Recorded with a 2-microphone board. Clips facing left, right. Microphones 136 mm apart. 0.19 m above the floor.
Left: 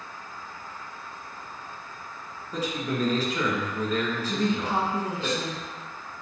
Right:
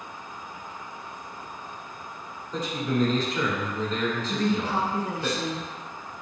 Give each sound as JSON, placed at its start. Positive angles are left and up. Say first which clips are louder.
{"t": 2.5, "sound": "a man speaking", "louder": "right 2 dB", "side_deg": 10, "distance_m": 1.8}
{"t": 4.3, "sound": "a woman speaking", "louder": "left 1 dB", "side_deg": 25, "distance_m": 1.0}